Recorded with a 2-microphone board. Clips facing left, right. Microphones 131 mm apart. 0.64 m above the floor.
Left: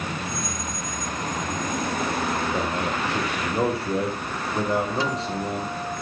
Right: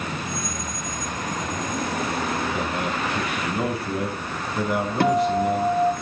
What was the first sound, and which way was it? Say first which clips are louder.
A man speaking: even; 30° left (ahead or behind).